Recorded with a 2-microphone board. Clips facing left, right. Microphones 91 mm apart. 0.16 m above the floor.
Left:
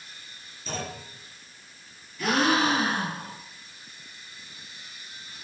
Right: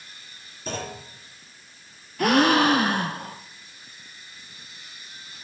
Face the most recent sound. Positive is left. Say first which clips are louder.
# right 5 dB
turn(degrees=-65)  # may be behind; listen again after turning